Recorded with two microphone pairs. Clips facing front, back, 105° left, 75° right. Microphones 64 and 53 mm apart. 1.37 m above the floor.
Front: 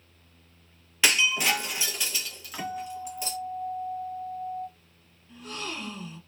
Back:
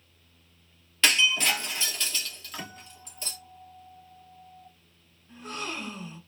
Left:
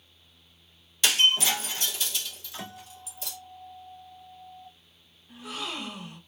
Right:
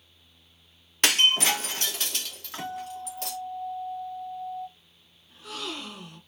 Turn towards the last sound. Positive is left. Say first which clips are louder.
# back 1 dB, left 1 dB
turn(degrees=155)